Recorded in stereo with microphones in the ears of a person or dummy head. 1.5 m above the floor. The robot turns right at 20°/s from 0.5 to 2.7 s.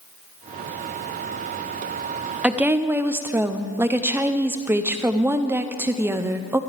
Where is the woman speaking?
10° right (ahead or behind), 0.6 m; by 6.6 s 15° right (ahead or behind), 0.6 m.